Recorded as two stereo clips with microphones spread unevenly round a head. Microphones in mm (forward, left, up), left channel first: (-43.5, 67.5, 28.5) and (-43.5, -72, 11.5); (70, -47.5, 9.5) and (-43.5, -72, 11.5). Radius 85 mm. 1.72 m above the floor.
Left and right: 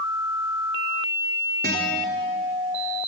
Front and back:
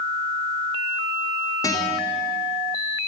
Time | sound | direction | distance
1.6 | a guitar | 45° right | 3.5 m